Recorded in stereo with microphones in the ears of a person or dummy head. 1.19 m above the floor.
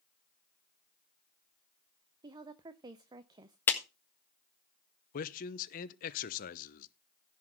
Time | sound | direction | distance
2.2 | a woman speaking | 20° right (ahead or behind) | 0.5 m
3.7 | a clap | 10° left (ahead or behind) | 1.5 m
5.1 | a man speaking | 45° left (ahead or behind) | 0.9 m